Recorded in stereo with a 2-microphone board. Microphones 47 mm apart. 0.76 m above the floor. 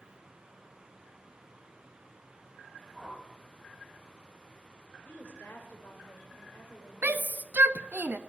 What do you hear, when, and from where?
2.9 s a whoosh: 10° right (ahead or behind), 2.5 m
5.0 s a woman speaking: 45° left (ahead or behind), 2.5 m
7.0 s a shout: 40° right (ahead or behind), 0.6 m